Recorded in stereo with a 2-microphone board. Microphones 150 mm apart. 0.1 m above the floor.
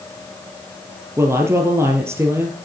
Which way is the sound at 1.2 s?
15° right (ahead or behind).